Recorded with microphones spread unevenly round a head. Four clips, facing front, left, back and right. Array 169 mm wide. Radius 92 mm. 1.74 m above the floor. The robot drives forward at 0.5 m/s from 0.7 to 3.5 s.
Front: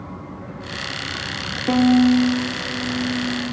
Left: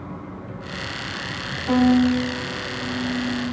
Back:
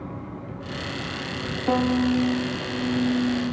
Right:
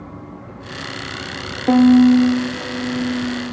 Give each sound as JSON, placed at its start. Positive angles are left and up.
{"t": 1.7, "sound": "a violin", "azimuth_deg": -80, "distance_m": 1.1}